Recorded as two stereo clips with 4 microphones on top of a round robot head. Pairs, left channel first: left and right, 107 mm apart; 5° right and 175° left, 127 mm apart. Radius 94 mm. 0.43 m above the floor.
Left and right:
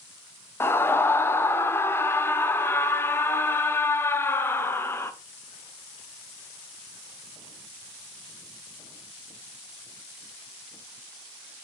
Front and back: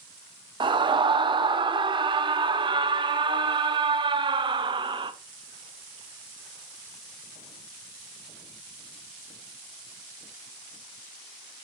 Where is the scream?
150° left, 1.2 m.